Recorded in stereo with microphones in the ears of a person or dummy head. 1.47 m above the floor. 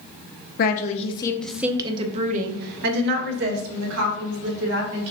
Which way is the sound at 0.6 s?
50° left (ahead or behind).